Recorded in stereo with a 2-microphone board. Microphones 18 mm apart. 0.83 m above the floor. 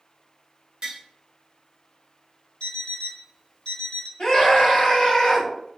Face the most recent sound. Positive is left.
turn(degrees=55)  # may be behind; listen again after turning